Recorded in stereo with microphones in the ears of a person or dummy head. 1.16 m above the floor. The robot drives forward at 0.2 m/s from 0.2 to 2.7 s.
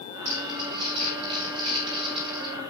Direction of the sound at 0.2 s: 35° right (ahead or behind).